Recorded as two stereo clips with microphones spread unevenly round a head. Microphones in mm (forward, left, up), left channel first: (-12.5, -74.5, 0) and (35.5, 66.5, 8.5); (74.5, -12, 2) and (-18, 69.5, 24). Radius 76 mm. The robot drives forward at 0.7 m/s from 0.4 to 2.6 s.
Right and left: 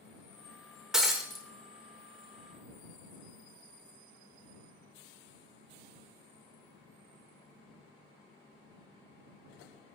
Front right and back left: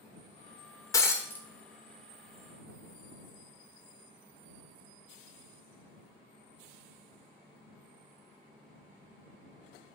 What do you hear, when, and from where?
0.9 s breaking glass: 5° left, 1.2 m; by 1.4 s 25° left, 1.1 m